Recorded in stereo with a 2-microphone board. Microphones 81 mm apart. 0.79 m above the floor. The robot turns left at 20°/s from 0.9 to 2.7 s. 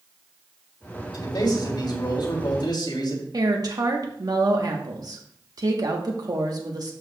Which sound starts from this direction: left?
A man speaking, at 1.1 s.